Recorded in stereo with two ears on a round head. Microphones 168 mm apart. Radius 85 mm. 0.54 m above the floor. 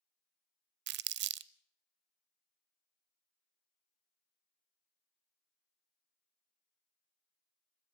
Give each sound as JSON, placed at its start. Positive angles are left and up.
{"t": 0.9, "sound": "crumpling", "side_deg": -70, "distance_m": 0.6}